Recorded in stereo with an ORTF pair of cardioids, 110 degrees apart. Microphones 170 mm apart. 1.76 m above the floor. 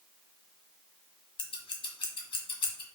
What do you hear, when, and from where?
1.4 s scissors: 30° left, 1.2 m